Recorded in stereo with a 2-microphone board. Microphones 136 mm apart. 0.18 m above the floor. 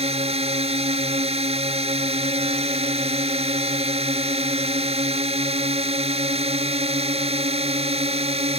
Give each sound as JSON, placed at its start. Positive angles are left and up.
{"t": 0.0, "sound": "a drone", "side_deg": -50}